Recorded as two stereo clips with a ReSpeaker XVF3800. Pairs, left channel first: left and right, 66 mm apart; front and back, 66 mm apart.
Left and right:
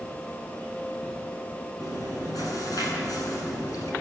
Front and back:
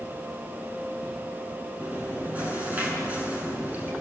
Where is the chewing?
115° left, 7.5 m.